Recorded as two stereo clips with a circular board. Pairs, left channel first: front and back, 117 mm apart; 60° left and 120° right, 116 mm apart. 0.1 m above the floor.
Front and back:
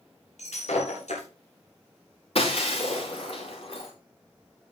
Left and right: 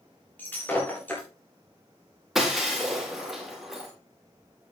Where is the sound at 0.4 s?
15° right, 8 m.